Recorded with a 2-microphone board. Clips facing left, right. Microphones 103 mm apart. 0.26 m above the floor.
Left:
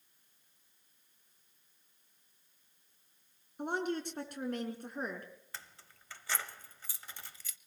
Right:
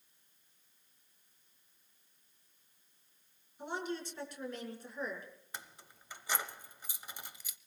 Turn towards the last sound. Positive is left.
turn(degrees=-20)  # may be behind; listen again after turning